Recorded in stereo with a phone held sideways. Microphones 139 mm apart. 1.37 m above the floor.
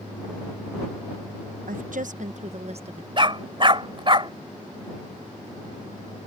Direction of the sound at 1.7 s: 80° right.